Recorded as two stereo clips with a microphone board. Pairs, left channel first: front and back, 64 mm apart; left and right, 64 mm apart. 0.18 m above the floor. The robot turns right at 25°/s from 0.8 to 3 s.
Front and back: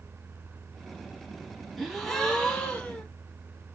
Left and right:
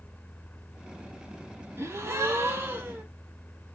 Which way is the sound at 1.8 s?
90° right.